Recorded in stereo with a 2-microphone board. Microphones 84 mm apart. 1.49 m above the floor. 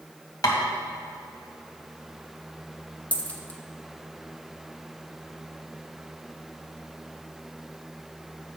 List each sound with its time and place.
0.4 s tapping: 50° left (ahead or behind), 1.7 m
3.1 s a dropped coin: 20° left (ahead or behind), 0.8 m